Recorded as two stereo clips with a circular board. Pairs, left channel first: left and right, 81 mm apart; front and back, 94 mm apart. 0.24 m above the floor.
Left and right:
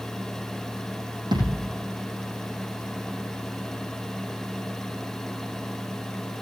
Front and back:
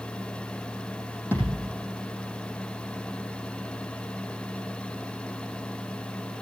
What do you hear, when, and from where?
1.3 s a thud: 65° right, 4 m